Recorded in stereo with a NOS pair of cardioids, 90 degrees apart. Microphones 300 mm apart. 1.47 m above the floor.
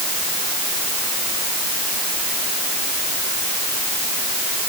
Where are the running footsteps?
No running footsteps in this recording.